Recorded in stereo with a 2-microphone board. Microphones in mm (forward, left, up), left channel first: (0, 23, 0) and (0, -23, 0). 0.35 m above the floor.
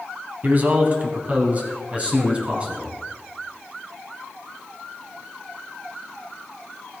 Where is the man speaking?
35° right (ahead or behind), 2 m; by 2.9 s 25° right (ahead or behind), 3 m.